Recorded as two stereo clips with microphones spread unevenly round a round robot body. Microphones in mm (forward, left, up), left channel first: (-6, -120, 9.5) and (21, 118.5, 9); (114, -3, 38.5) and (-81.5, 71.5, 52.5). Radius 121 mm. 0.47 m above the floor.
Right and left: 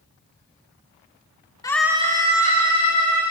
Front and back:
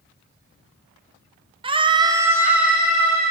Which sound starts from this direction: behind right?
A scream, at 1.6 s.